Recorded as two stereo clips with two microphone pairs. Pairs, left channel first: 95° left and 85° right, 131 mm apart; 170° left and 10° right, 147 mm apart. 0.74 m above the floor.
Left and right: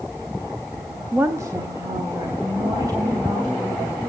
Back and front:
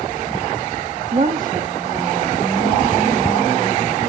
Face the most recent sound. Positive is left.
turn(degrees=-25)